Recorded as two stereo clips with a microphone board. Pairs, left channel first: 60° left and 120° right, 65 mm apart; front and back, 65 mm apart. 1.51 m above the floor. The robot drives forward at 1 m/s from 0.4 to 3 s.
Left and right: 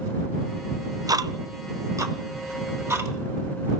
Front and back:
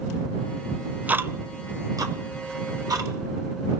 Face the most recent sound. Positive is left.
turn(degrees=-165)